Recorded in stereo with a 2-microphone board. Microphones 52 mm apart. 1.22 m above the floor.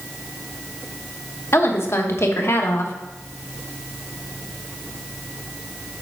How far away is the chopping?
I don't hear chopping.